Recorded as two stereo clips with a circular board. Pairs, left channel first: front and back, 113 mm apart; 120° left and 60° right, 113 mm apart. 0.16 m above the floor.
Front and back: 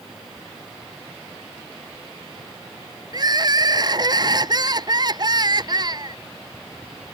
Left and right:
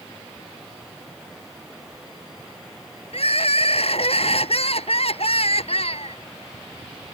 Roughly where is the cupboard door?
I don't hear a cupboard door.